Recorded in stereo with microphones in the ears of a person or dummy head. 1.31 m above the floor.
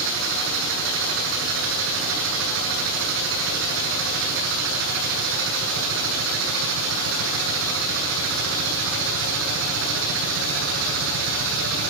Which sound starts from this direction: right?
A machine running, at 0.0 s.